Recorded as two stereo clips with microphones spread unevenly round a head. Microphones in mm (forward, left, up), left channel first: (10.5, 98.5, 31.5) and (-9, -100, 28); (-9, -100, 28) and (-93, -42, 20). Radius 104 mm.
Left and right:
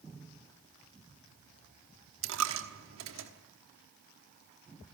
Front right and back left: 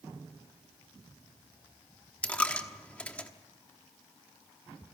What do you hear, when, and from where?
2.2 s a dropped coin: 110° right, 1.2 m